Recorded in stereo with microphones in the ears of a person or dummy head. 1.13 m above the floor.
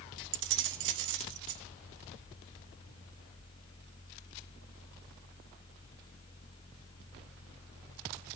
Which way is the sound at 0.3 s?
65° right (ahead or behind).